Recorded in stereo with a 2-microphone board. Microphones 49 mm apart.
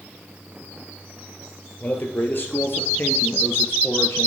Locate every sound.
1.8 s a man speaking: 35° left (ahead or behind), 2.5 m; by 4.3 s 55° left (ahead or behind), 2.5 m